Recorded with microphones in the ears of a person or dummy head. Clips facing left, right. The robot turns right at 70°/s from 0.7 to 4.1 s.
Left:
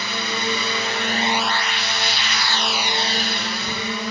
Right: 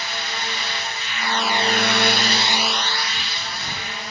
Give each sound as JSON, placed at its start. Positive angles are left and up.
{"t": 0.0, "sound": "a drone", "side_deg": 75}